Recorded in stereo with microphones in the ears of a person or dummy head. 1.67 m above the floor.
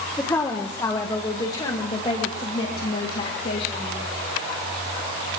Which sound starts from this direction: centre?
A woman speaking, at 0.2 s.